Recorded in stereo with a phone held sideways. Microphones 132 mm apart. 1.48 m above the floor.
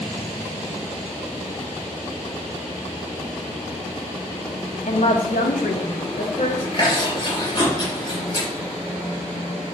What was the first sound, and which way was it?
A woman speaking, 65° left (ahead or behind).